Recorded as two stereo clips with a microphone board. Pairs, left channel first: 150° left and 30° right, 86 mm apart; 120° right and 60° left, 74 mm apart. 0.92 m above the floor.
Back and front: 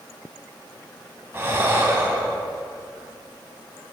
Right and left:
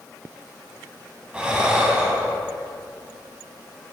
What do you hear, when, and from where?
1.3 s breathing: 5° right, 0.9 m